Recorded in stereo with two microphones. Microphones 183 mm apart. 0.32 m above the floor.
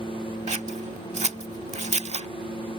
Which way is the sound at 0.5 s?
40° right (ahead or behind).